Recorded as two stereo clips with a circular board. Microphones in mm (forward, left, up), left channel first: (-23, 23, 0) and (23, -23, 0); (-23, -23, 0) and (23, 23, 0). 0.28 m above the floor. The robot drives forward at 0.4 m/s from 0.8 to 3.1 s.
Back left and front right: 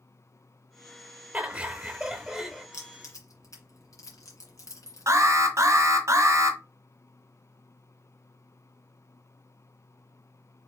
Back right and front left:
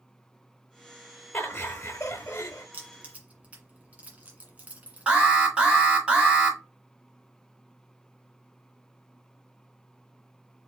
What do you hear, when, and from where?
1.3 s laughter: 95° right, 0.9 m; by 2.6 s 145° right, 1.1 m
2.7 s keys jangling: 110° left, 1.8 m; by 5.9 s 115° left, 1.9 m
5.1 s an alarm: 25° right, 1.6 m